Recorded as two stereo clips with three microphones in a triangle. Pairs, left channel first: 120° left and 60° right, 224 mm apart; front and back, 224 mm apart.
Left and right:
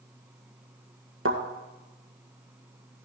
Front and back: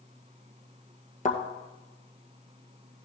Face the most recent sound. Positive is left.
turn(degrees=-55)